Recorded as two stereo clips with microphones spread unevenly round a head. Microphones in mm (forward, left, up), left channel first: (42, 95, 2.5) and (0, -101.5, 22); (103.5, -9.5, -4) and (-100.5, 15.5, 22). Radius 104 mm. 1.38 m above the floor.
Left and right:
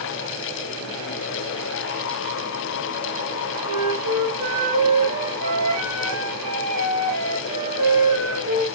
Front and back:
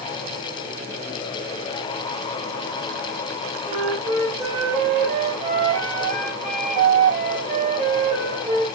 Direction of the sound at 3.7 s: 120° right.